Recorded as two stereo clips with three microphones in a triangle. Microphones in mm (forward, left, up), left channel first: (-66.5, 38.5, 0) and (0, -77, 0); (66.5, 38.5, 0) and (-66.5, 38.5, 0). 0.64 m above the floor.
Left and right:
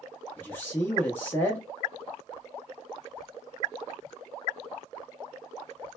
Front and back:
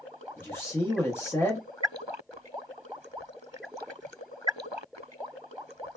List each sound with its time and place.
0.4 s a man speaking: 60° left, 0.6 m